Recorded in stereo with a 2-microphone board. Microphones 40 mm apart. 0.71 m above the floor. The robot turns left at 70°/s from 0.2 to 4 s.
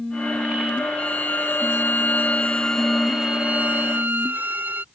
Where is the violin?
140° left; by 4.8 s 70° right.